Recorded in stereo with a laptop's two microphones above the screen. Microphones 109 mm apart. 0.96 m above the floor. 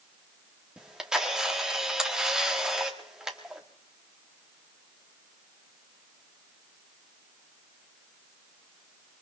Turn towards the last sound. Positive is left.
turn(degrees=-5)  # may be behind; listen again after turning